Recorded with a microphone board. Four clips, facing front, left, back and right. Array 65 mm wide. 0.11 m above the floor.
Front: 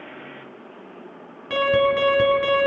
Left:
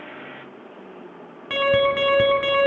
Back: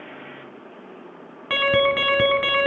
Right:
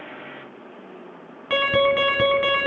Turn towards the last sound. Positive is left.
turn(degrees=-165)